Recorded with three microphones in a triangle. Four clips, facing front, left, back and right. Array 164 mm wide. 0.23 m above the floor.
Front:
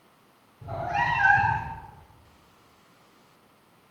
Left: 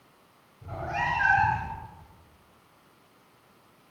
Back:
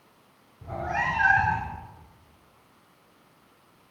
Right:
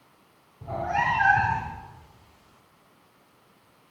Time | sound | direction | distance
0.6 | a cat meowing | 100° right | 8 m